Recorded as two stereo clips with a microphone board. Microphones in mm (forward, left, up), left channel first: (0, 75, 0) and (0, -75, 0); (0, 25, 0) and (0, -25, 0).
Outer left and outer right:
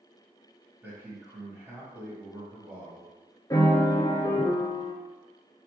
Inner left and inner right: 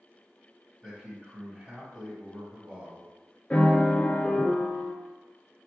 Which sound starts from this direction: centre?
A man speaking, at 0.8 s.